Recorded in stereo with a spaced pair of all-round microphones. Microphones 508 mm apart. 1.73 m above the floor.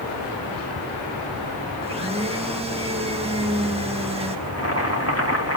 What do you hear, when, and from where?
1.8 s a blender: 10° right (ahead or behind), 1.8 m
4.5 s boiling: 30° left (ahead or behind), 3 m